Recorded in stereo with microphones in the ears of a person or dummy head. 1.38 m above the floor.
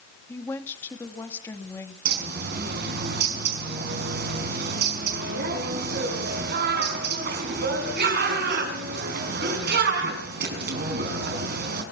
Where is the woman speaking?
20° left (ahead or behind), 3 m.